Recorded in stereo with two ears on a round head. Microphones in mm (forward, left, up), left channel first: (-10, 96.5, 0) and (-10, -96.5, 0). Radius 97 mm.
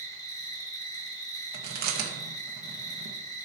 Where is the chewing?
45° right (ahead or behind), 1.4 m.